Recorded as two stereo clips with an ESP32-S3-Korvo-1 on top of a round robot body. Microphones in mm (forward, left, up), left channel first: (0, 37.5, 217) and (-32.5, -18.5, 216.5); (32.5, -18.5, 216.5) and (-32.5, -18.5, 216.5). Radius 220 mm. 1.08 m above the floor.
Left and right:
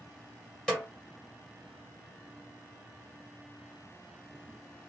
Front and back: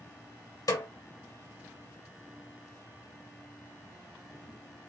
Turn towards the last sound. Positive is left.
turn(degrees=-20)